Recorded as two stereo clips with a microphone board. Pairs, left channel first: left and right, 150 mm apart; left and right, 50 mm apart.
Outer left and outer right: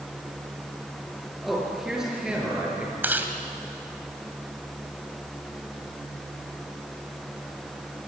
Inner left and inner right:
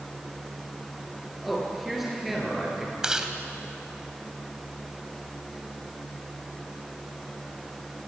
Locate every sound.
1.4 s a man speaking: centre (ahead or behind), 7 m; by 2.9 s 10° right (ahead or behind), 7.5 m
3.0 s chewing: 15° right (ahead or behind), 1.9 m